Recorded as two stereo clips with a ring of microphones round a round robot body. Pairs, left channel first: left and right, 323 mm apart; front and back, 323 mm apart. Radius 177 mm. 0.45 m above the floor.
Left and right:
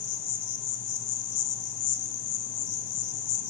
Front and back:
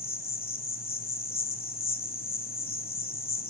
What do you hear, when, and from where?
0.0 s an insect: 60° left, 3 m